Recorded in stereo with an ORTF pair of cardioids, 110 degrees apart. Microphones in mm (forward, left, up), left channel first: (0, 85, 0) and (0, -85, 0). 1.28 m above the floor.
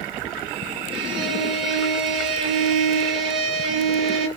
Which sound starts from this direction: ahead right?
A violin, at 0.9 s.